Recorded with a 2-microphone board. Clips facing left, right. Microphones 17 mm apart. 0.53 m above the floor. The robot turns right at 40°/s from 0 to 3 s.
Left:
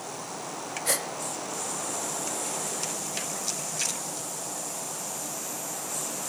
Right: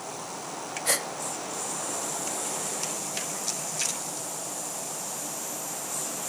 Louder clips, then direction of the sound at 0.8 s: Right 2 dB; 5° right (ahead or behind).